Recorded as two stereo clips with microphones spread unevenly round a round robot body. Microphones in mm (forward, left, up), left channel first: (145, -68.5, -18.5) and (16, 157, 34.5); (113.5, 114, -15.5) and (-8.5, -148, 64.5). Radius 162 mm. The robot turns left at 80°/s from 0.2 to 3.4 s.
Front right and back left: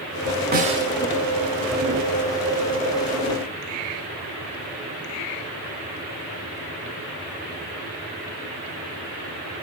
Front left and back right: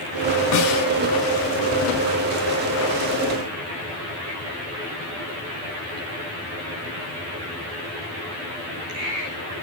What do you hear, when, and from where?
0.5 s a snare drum: 65° left, 1.9 m; by 0.8 s 35° left, 1.9 m